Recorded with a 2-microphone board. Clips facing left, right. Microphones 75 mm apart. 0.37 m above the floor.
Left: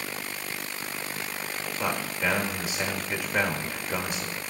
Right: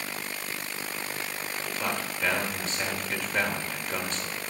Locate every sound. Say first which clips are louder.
1.8 s a man speaking: left 2 dB; 15° left (ahead or behind), 1.5 m